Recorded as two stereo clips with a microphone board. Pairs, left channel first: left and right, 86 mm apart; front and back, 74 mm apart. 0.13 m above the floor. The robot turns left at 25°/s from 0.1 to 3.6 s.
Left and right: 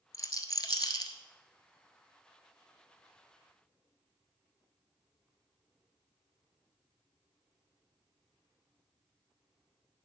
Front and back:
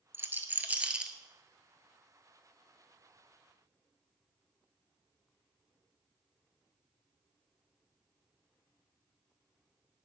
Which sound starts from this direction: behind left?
A rattle, at 0.1 s.